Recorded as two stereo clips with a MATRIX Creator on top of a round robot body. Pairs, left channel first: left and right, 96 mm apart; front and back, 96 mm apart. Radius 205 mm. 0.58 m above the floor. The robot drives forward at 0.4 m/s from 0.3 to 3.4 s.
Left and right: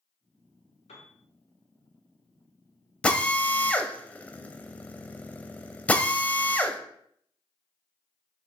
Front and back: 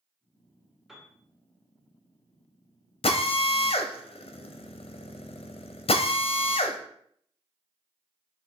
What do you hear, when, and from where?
0.9 s a piano: 90° left, 0.7 m; by 1.1 s 100° left, 0.7 m
3.0 s a drill: 10° left, 0.7 m; by 6.8 s 15° left, 0.6 m